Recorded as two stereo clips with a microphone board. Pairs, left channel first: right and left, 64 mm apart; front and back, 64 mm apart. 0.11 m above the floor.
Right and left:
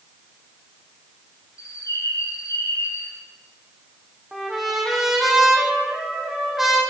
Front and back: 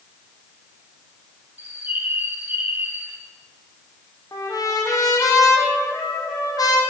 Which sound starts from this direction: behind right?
A bird, at 1.6 s.